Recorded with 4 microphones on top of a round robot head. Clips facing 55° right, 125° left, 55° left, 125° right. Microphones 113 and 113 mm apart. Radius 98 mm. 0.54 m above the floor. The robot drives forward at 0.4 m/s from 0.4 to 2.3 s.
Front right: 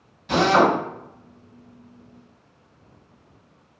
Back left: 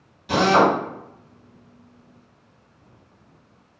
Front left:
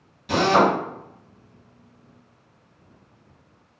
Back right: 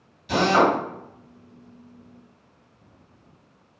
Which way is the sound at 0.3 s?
50° left.